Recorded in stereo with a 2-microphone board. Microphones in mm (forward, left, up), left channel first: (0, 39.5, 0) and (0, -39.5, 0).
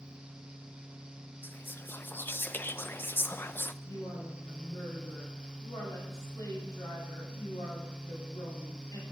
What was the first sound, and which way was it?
Whispering, 25° left (ahead or behind).